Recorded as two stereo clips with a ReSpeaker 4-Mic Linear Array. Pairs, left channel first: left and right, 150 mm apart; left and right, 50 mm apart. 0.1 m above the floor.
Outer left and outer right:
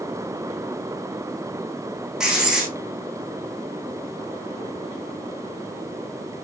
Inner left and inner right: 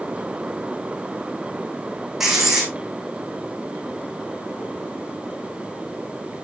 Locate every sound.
2.2 s writing: 5° right (ahead or behind), 3.5 m